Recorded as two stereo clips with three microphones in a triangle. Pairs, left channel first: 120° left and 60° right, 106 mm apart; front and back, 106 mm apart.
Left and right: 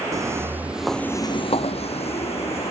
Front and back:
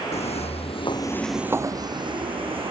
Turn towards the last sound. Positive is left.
turn(degrees=145)